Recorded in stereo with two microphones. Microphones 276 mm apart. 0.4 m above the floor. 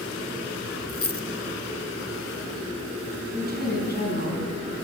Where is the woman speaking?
35° left (ahead or behind), 4 m.